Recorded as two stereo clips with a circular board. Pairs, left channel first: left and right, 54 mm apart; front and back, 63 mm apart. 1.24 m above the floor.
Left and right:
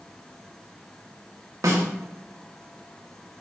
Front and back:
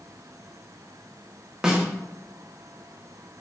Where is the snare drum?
100° right, 0.7 m.